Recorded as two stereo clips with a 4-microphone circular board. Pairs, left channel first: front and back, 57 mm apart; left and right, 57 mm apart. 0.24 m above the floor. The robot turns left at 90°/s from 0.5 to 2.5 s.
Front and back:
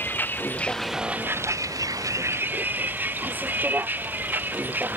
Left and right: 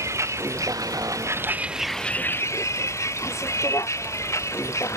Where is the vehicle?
55° right; by 5.0 s 125° left.